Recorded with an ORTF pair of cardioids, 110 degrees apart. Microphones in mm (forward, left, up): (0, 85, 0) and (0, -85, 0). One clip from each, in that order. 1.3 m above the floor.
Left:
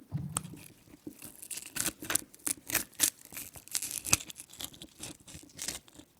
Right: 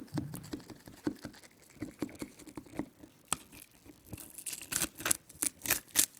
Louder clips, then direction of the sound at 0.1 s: Left 1 dB; 70° left.